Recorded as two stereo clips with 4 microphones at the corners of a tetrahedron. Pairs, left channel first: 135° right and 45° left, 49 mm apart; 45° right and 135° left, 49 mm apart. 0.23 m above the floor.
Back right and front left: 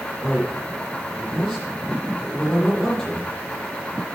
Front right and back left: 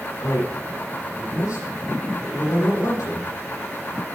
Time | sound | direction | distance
0.2 | a man speaking | 55° right | 9.5 m